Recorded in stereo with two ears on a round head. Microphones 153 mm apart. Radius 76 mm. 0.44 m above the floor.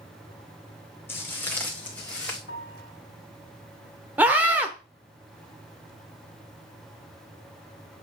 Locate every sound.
1.1 s footsteps: 15° left (ahead or behind), 1.8 m; by 2.4 s 5° left (ahead or behind), 2.5 m
2.5 s a piano: 75° left (ahead or behind), 1.8 m
4.2 s a scream: 10° right (ahead or behind), 1.1 m